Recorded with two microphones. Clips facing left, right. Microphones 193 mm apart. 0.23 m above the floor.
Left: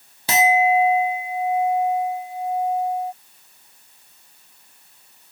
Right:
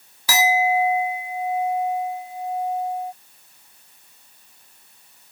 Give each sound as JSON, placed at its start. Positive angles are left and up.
{"t": 0.3, "sound": "a clink", "side_deg": 25}